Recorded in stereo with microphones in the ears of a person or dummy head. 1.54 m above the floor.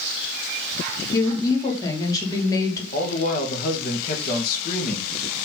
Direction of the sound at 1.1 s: 20° left (ahead or behind).